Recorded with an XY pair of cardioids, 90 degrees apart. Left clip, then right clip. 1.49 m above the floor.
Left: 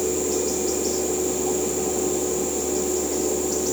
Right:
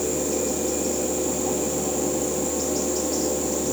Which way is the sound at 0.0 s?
35° right.